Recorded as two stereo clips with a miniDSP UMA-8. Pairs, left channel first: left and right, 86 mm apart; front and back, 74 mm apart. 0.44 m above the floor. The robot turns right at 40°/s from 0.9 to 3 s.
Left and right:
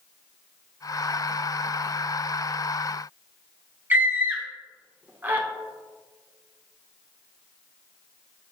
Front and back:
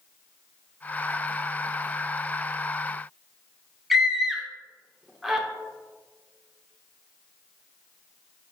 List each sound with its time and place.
3.9 s a scream: 100° right, 0.8 m